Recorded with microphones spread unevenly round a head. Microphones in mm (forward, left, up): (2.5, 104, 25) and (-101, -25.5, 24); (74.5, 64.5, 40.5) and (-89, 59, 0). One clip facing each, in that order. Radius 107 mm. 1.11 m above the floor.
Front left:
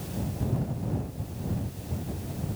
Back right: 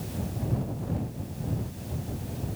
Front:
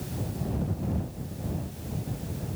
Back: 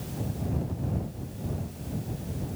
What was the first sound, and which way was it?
Only background noise.